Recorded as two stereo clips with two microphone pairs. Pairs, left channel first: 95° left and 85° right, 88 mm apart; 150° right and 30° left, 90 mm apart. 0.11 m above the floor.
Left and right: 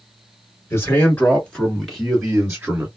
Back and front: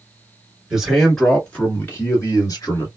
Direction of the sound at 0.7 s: 105° left.